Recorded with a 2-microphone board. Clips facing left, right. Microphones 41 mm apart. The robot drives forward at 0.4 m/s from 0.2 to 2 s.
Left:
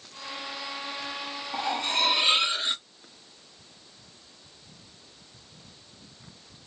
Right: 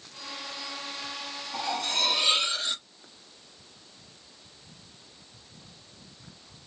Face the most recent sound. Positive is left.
turn(degrees=25)  # may be behind; listen again after turning